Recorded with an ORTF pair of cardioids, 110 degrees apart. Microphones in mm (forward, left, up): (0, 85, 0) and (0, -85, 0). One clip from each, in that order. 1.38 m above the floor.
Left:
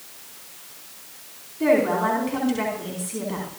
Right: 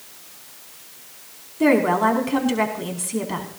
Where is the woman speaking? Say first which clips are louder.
Right 2 dB; 40° right, 4 m.